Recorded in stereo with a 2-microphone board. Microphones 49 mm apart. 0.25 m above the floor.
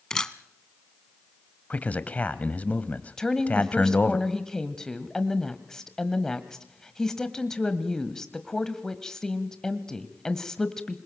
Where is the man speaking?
30° left (ahead or behind), 1.1 m.